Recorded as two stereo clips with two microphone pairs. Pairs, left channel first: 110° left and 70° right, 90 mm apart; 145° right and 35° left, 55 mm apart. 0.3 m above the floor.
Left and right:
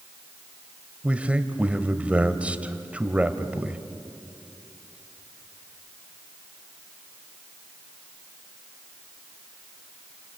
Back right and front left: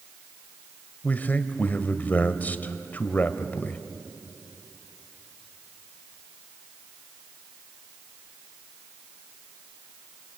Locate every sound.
1.0 s a man speaking: 130° right, 1.2 m